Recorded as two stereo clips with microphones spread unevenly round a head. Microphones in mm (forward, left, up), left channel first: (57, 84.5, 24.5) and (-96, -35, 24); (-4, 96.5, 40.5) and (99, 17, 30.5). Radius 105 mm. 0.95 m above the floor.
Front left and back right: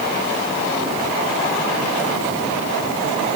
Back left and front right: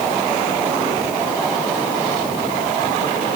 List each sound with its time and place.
Only background noise.